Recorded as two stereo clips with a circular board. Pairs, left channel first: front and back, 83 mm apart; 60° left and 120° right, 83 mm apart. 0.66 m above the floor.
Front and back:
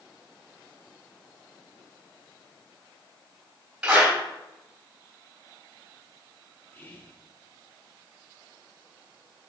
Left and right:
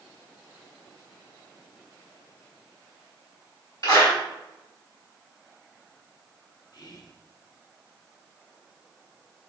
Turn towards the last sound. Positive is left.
turn(degrees=60)